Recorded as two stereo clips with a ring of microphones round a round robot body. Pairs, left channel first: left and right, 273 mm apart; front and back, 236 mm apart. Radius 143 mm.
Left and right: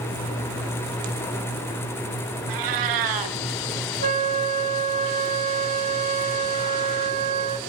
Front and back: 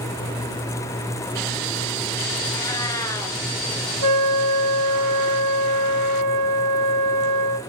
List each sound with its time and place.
2.5 s a cat meowing: 80° right, 2.5 m
4.0 s a flute: 155° right, 1.7 m